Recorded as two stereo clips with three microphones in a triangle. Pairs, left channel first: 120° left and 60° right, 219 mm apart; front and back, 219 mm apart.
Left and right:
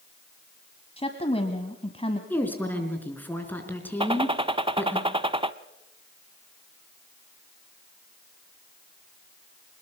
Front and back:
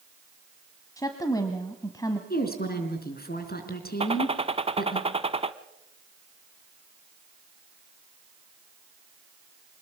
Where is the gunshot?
125° right, 0.7 m.